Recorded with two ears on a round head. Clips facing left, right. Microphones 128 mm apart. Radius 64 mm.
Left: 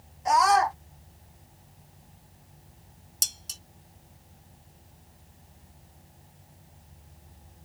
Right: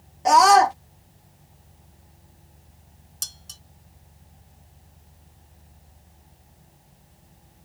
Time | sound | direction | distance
0.2 | a scream | 75° right (ahead or behind) | ?
3.2 | dishes clattering | 20° left (ahead or behind) | ?